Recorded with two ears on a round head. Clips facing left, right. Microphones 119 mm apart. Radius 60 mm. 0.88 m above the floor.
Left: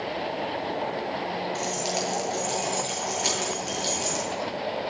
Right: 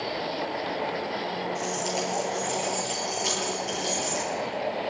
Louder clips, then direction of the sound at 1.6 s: Even; 80° left.